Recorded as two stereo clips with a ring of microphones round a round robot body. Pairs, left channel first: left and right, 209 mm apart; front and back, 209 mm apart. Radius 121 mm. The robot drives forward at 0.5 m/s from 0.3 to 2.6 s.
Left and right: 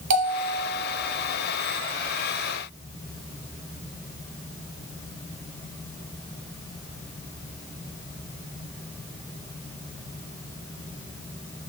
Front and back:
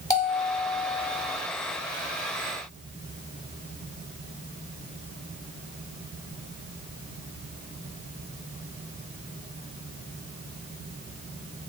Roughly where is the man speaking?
I don't hear a man speaking.